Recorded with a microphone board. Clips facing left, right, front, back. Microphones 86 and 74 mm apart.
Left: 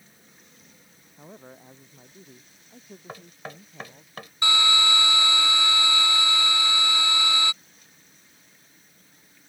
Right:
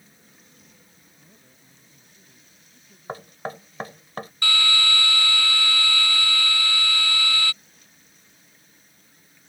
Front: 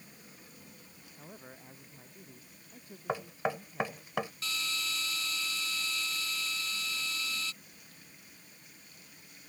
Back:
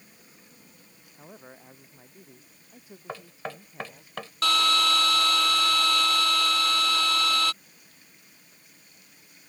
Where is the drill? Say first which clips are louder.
Left 2 dB, back 16 dB; 160° left.